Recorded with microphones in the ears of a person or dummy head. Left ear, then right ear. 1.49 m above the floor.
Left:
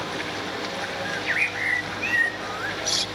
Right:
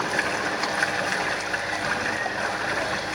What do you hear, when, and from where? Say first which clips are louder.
0.0 s running water: right 5 dB; 55° right (ahead or behind), 3 m
1.1 s a bird: left 1 dB; 75° left (ahead or behind), 1.0 m